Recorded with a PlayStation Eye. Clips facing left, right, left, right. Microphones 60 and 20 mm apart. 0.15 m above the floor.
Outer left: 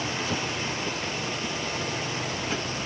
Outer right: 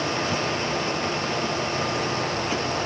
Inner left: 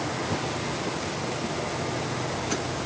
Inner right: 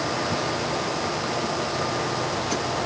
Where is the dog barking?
No dog barking in this recording.